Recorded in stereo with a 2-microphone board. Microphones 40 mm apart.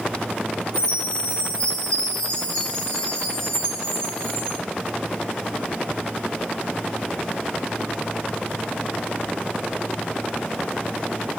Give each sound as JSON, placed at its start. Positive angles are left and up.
{"t": 0.7, "sound": "a chime", "side_deg": 25, "distance_m": 1.3}